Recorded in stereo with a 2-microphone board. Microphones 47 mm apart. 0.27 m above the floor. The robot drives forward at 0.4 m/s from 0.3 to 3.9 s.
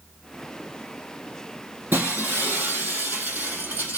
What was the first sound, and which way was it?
Breaking glass, 45° right (ahead or behind).